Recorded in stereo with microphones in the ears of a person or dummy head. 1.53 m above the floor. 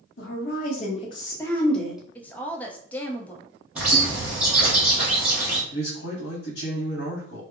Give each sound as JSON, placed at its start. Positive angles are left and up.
{"t": 0.2, "sound": "a woman speaking", "side_deg": 70, "distance_m": 0.8}
{"t": 2.1, "sound": "a woman speaking", "side_deg": 5, "distance_m": 0.6}
{"t": 3.8, "sound": "a bird", "side_deg": -10, "distance_m": 1.0}
{"t": 5.7, "sound": "a man speaking", "side_deg": 80, "distance_m": 1.1}